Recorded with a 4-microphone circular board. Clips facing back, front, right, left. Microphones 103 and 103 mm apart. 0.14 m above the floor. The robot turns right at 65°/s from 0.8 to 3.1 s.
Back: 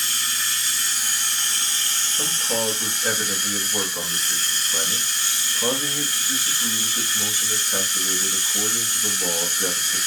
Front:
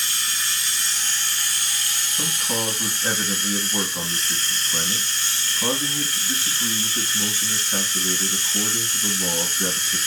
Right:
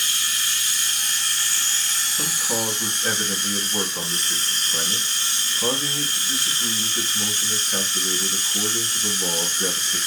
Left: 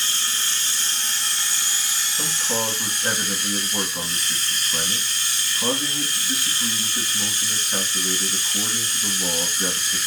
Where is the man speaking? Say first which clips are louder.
Back 2 dB, left 1 dB; 5° right, 1.1 m; by 10.0 s 55° left, 1.1 m.